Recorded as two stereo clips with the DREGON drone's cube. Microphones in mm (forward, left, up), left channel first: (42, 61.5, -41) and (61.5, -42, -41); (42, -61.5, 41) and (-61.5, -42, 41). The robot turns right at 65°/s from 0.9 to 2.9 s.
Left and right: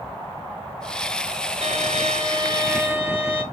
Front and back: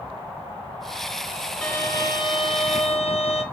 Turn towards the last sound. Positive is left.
turn(degrees=-10)